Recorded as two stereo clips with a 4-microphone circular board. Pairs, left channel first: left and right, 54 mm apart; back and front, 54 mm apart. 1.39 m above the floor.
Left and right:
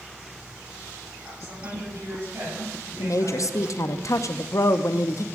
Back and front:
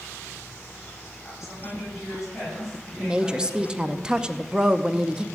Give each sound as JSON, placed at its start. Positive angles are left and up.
{"t": 1.2, "sound": "a woman speaking", "azimuth_deg": -90, "distance_m": 7.5}
{"t": 3.0, "sound": "a woman speaking", "azimuth_deg": 75, "distance_m": 0.7}